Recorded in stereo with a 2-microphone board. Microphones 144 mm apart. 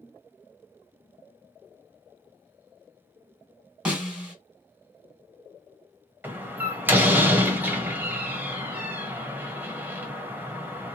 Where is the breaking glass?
I don't hear breaking glass.